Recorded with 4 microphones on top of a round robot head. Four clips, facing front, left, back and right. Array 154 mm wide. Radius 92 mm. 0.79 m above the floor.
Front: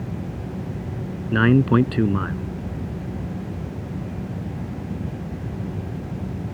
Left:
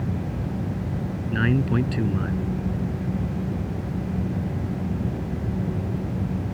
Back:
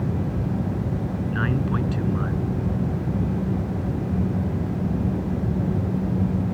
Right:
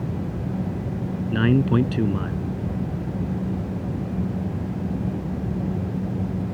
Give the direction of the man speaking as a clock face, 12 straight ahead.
1 o'clock.